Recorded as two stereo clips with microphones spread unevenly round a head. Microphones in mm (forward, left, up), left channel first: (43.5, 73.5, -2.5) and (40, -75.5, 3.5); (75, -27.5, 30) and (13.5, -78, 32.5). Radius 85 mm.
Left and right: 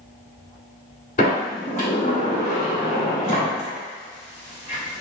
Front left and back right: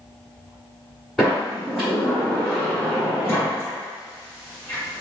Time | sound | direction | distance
1.2 | a sliding door | 130° left | 1.7 m